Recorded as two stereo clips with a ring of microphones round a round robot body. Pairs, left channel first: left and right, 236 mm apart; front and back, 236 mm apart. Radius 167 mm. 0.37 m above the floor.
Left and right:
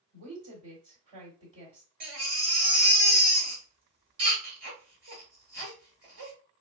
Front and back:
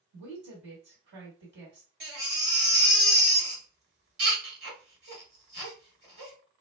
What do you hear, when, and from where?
0.1 s a woman speaking: 145° right, 1.2 m
2.0 s a baby crying: 140° right, 1.1 m